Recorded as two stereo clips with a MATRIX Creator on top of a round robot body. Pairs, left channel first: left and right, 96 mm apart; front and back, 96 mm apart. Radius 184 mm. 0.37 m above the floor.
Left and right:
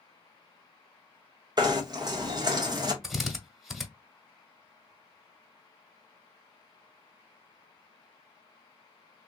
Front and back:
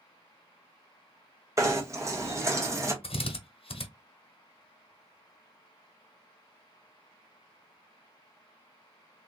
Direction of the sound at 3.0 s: Straight ahead.